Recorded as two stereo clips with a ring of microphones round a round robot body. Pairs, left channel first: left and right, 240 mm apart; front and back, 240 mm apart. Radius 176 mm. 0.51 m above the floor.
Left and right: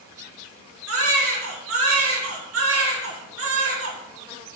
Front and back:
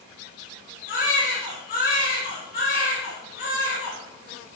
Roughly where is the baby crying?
Right.